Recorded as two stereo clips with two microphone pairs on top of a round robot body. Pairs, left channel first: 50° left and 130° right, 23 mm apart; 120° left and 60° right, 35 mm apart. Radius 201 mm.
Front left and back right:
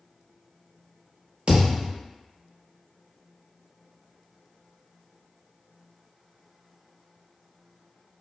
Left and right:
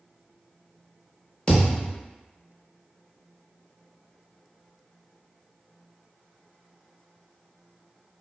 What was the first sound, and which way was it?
A thud, 175° right.